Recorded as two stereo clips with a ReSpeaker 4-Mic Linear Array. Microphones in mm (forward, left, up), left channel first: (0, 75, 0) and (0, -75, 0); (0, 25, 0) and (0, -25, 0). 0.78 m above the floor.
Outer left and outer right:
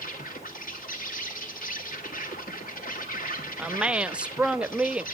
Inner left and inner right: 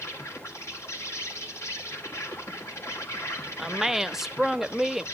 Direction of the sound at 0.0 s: 65° left (ahead or behind).